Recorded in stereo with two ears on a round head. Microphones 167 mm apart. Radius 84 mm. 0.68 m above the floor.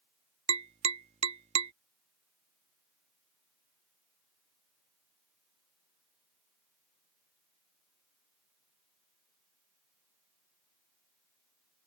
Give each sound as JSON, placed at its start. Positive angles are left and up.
{"t": 0.5, "sound": "tapping", "side_deg": -35}